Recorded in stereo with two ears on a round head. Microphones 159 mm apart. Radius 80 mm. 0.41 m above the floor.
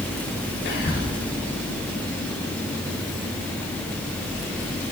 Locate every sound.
0.7 s whispering: 65° left (ahead or behind), 3.5 m